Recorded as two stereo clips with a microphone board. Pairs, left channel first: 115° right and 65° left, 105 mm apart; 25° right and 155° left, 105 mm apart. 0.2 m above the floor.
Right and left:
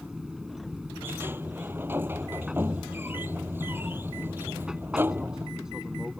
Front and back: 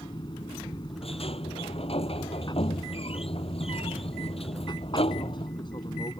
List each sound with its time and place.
0.0 s an aircraft: 15° right
1.0 s a sliding door: straight ahead